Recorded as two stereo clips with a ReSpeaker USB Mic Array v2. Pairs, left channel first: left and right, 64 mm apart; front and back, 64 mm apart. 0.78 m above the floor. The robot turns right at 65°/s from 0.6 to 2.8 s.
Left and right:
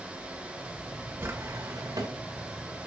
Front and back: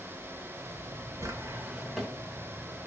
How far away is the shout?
No shout in this recording.